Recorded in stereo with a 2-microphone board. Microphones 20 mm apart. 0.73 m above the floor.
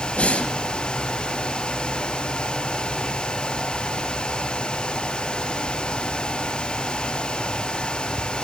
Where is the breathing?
75° left (ahead or behind), 4 m.